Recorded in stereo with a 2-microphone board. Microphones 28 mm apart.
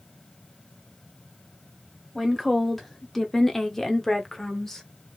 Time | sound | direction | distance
2.1 | a woman speaking | 5° left (ahead or behind) | 0.9 m